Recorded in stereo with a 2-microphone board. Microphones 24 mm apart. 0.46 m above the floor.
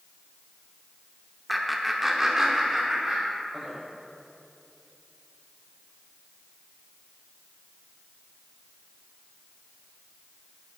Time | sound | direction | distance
1.5 | laughter | centre (ahead or behind) | 0.8 m